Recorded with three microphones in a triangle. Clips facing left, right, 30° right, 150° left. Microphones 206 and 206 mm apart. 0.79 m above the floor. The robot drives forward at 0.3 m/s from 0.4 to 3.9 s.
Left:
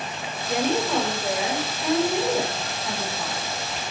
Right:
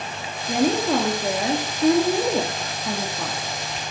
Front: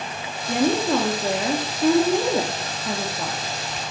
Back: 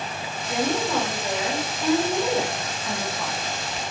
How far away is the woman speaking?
About 1.7 m.